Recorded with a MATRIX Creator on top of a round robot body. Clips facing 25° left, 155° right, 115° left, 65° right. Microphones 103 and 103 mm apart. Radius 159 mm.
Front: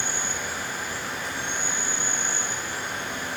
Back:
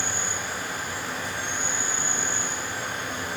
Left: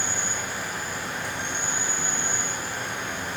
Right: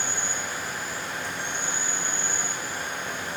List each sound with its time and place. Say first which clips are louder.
0.0 s an insect: even, left 1 dB; 150° left, 1.5 m